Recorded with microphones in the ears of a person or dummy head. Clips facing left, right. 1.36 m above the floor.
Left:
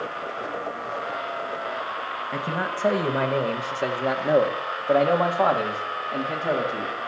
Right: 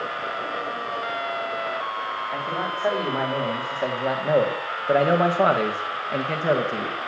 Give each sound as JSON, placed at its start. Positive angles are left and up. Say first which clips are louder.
{"t": 2.3, "sound": "a man speaking", "louder": "left 1 dB", "side_deg": 40, "distance_m": 2.0}